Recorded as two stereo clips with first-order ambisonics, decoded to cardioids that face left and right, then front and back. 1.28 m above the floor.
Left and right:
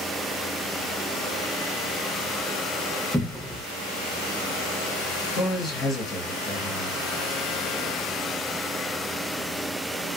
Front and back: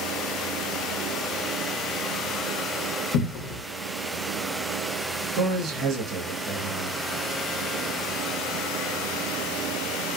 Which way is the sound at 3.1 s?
5° left.